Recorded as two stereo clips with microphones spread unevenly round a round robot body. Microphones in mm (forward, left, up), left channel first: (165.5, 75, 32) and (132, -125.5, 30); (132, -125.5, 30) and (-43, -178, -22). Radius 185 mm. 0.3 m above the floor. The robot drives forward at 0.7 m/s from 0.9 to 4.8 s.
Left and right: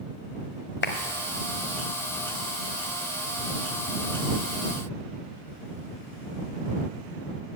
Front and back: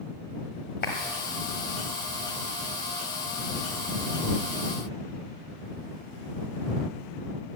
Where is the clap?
75° left, 1.3 m.